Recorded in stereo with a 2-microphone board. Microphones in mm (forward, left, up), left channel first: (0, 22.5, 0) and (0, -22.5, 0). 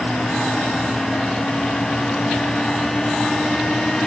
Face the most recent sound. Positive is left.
No sound to turn to.